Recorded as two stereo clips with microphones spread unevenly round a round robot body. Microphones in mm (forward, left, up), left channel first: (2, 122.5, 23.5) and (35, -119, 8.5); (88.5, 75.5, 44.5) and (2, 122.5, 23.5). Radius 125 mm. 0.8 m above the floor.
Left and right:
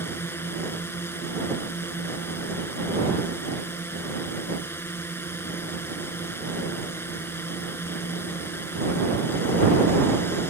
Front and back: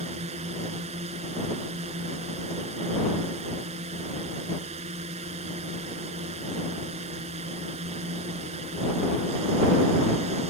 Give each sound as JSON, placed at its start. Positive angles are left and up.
{"t": 0.0, "sound": "a drone", "azimuth_deg": 180}